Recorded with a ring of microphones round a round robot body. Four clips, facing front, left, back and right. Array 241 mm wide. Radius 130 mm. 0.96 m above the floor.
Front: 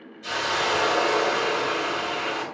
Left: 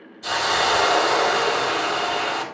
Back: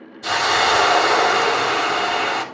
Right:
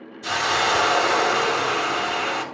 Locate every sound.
0.2 s a hiss: 175° left, 3 m